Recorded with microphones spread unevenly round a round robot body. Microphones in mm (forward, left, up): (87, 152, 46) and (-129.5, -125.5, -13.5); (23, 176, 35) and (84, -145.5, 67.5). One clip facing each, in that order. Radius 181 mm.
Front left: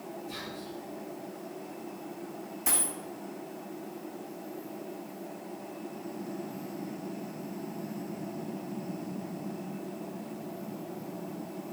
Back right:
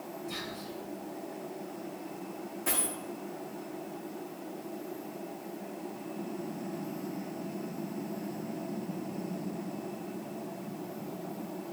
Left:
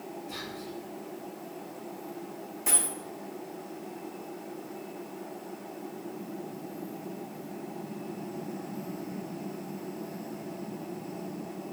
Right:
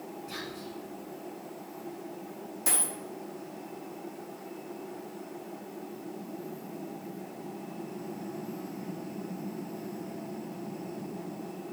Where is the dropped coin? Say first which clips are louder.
Back right 1 dB, left 1 dB; 20° right, 1.8 m.